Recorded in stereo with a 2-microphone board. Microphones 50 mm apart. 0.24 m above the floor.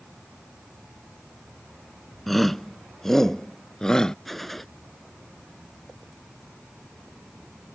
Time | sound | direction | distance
2.3 | a shout | 5° left (ahead or behind) | ?
4.2 | a gunshot | 5° left (ahead or behind) | ?